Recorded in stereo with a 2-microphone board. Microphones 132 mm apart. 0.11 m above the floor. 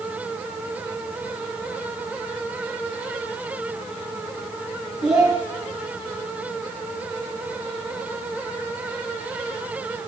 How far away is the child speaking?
About 5 m.